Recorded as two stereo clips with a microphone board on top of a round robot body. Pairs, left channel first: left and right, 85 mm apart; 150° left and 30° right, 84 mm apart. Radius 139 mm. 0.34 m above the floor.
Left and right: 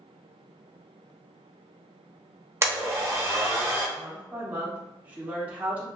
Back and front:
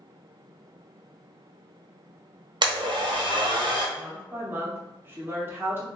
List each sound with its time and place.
2.6 s a blender: 35° right, 1.0 m
4.0 s a woman speaking: 45° right, 0.9 m